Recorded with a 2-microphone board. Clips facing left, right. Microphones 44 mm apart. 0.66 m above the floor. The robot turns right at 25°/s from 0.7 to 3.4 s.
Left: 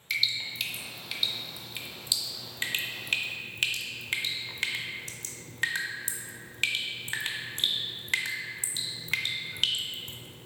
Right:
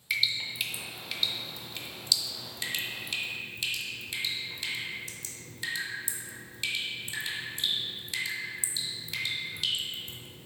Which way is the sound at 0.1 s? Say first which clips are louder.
Even; 10° right (ahead or behind).